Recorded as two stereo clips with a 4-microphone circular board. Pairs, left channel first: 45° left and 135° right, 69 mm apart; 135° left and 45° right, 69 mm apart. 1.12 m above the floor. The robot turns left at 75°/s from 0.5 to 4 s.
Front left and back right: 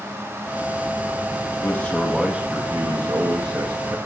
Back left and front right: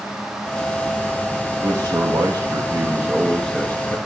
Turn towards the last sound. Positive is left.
turn(degrees=175)